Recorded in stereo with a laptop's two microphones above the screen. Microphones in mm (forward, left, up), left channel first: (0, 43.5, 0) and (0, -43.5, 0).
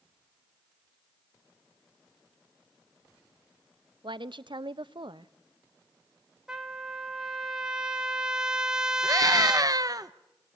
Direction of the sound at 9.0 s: 45° right (ahead or behind).